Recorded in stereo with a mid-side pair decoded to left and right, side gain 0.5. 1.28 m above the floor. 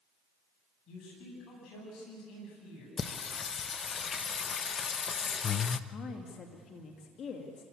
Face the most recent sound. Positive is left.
turn(degrees=55)